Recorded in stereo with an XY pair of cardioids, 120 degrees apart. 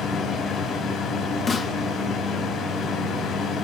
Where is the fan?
55° left, 5 m.